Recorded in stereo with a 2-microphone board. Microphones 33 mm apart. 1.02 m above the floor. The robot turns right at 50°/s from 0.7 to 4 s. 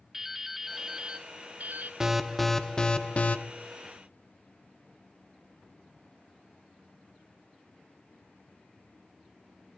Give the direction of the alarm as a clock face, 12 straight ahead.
1 o'clock.